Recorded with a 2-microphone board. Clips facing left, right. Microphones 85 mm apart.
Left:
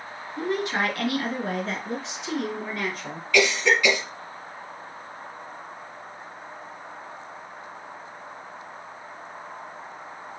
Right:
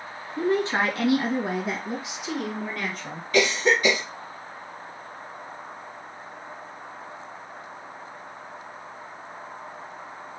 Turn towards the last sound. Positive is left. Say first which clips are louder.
# even
turn(degrees=-35)  # may be behind; listen again after turning